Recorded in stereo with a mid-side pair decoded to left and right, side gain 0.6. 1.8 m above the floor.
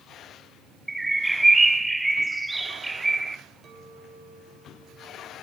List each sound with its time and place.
0.9 s a bird: 10° right, 0.6 m
3.6 s a clink: 45° right, 2.5 m